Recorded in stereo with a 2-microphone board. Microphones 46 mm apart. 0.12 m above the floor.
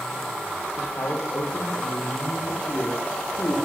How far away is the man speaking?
About 6.5 m.